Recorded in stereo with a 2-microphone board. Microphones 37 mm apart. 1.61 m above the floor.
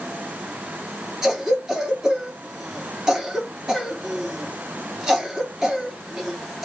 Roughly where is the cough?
Centre.